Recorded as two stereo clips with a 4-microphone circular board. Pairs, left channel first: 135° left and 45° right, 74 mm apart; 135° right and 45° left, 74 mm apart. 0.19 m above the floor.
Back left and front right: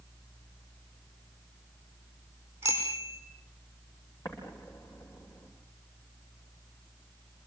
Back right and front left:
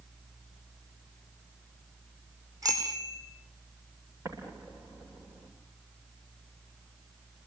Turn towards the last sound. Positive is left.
turn(degrees=95)